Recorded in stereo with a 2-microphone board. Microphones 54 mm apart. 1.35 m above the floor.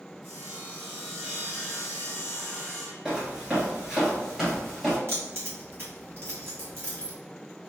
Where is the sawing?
45° right (ahead or behind), 1.9 m.